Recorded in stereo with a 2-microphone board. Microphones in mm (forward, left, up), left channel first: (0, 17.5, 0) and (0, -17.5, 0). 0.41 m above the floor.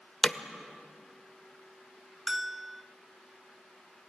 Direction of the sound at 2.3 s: 10° right (ahead or behind).